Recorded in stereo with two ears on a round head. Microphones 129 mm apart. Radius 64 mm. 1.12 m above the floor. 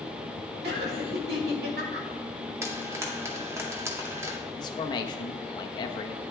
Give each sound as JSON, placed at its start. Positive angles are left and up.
{"t": 0.6, "sound": "laughter", "side_deg": -85, "distance_m": 4.0}
{"t": 2.6, "sound": "frying", "side_deg": -20, "distance_m": 2.0}
{"t": 4.6, "sound": "a man speaking", "side_deg": 30, "distance_m": 1.2}